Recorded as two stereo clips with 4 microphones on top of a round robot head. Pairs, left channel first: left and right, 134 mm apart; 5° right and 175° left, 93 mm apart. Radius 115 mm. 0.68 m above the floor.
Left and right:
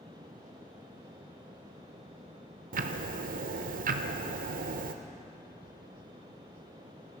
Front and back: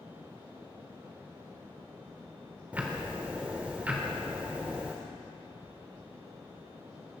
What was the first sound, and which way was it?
Ticking, 105° right.